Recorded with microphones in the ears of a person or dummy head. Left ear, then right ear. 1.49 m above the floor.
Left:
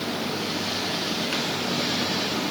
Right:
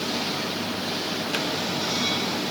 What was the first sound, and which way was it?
Only background noise.